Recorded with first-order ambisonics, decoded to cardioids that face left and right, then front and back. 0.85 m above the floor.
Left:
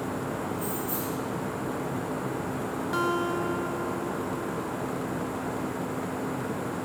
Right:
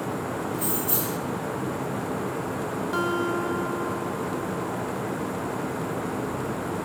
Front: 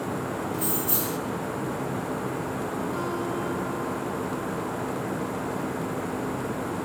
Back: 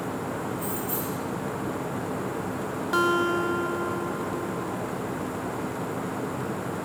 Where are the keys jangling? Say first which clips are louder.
Right 3 dB, front 2 dB; 35° right, 0.8 m.